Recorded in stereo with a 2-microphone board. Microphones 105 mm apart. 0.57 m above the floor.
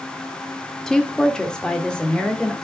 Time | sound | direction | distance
0.9 | a woman speaking | 5° left (ahead or behind) | 0.9 m